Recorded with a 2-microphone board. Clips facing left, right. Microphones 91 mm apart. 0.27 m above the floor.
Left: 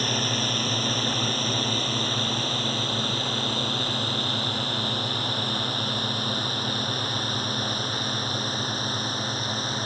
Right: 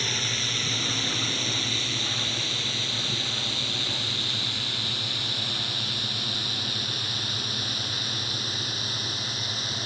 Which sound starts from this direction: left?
A drone, at 0.0 s.